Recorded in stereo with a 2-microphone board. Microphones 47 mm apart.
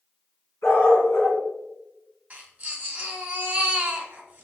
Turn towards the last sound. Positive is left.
turn(degrees=-30)  # may be behind; listen again after turning